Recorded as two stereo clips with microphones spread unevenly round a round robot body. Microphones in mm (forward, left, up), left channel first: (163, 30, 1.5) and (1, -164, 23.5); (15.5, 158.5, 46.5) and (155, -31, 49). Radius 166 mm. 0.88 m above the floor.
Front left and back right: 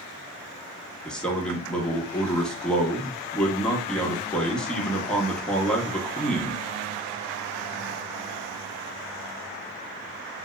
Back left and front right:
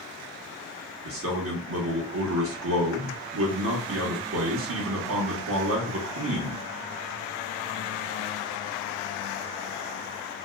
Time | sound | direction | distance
1.1 | a man speaking | 35° right | 1.1 m